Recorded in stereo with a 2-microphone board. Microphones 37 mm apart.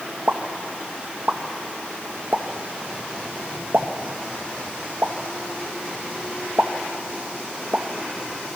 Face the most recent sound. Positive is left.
turn(degrees=-50)  # may be behind; listen again after turning